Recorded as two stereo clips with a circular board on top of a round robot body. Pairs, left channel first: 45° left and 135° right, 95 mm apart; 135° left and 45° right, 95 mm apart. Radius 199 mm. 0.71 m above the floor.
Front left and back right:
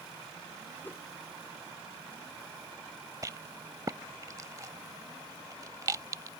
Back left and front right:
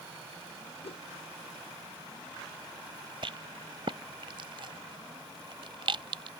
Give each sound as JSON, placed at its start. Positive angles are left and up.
{"t": 0.8, "sound": "a whoosh", "azimuth_deg": 115}
{"t": 3.2, "sound": "a rattle", "azimuth_deg": -80}